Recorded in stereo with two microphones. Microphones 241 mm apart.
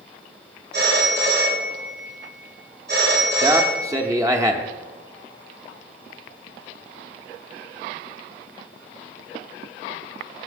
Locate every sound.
0.7 s a phone ringing: 45° right (ahead or behind), 4.5 m
3.4 s a man speaking: 15° right (ahead or behind), 0.7 m